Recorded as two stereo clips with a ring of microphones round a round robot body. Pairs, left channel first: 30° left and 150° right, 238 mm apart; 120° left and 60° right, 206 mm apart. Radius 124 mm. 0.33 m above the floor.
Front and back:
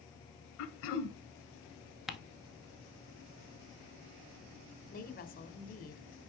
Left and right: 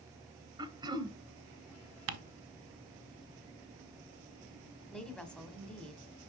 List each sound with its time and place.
0.6 s throat clearing: 10° left, 0.8 m
2.1 s ticking: 60° right, 0.8 m
4.9 s a woman speaking: 35° left, 1.3 m